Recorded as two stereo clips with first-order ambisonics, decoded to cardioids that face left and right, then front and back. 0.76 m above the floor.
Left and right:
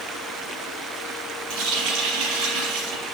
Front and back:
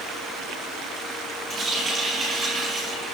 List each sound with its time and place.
1.5 s a running tap: 110° right, 5.5 m